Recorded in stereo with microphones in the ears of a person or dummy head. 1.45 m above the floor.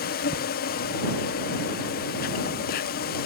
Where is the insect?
50° left (ahead or behind).